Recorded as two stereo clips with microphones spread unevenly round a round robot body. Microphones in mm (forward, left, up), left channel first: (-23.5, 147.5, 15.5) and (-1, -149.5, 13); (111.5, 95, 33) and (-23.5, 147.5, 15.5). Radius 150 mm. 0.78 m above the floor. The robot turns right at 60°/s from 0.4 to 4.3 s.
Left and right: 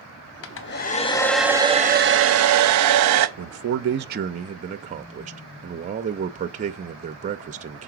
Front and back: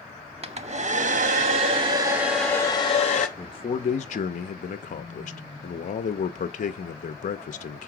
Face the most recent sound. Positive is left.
turn(degrees=-30)